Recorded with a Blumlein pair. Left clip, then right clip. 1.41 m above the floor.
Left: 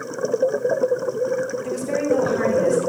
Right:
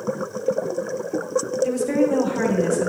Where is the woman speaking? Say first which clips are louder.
Right 3 dB; 10° right, 2.5 m.